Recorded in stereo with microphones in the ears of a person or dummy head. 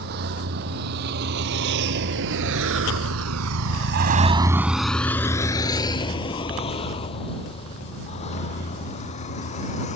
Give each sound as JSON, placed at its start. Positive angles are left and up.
{"t": 0.0, "sound": "a vehicle", "side_deg": -55}